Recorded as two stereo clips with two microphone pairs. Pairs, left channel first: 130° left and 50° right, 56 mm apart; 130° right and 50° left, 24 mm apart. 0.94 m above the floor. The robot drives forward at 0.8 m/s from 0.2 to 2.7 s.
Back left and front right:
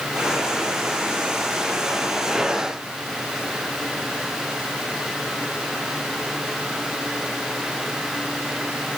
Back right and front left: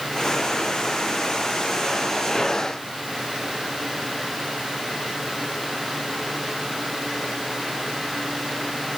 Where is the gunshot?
No gunshot in this recording.